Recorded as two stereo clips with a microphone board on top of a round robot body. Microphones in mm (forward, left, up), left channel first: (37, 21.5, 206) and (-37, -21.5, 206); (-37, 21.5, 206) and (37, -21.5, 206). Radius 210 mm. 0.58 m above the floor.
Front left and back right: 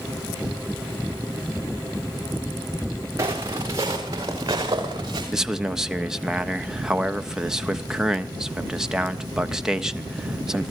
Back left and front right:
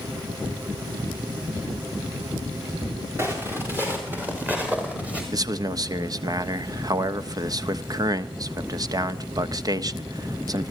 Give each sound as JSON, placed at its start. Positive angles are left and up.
{"t": 3.2, "sound": "footsteps", "azimuth_deg": -90, "distance_m": 5.0}
{"t": 5.3, "sound": "a man speaking", "azimuth_deg": -65, "distance_m": 1.4}